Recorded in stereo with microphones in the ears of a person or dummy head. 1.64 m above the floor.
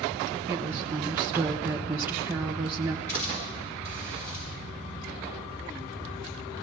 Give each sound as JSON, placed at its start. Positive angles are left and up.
{"t": 0.5, "sound": "a woman speaking", "side_deg": -10, "distance_m": 0.7}
{"t": 3.1, "sound": "a hiss", "side_deg": 10, "distance_m": 5.5}